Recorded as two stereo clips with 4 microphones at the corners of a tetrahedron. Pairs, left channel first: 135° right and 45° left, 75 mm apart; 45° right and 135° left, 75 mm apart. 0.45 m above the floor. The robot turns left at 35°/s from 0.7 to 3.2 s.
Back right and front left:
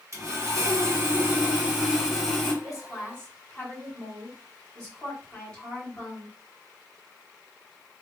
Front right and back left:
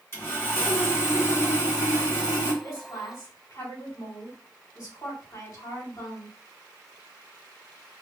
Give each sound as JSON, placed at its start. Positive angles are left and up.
{"t": 0.1, "sound": "sawing", "azimuth_deg": 5, "distance_m": 2.0}
{"t": 2.6, "sound": "a woman speaking", "azimuth_deg": -50, "distance_m": 2.0}